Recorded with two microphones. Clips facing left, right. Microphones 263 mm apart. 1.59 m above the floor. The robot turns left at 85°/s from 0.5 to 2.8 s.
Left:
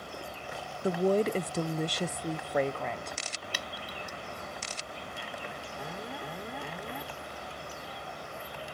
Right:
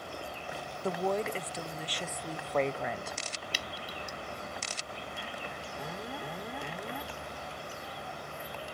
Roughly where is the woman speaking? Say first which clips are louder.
Left 6 dB; behind.